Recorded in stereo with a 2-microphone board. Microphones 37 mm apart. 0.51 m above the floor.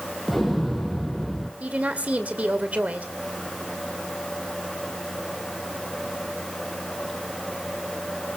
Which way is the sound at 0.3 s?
5° right (ahead or behind).